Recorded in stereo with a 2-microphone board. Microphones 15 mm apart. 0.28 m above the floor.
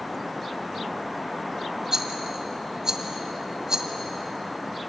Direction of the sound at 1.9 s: 35° right (ahead or behind).